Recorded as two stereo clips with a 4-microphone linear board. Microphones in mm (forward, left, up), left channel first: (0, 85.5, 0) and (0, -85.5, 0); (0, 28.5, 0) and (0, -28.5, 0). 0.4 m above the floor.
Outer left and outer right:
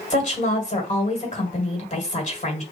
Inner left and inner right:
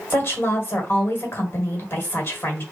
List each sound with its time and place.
0.1 s a woman speaking: 45° left (ahead or behind), 1.6 m